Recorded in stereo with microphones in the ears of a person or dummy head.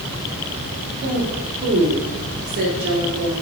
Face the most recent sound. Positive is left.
turn(degrees=-65)  # may be behind; listen again after turning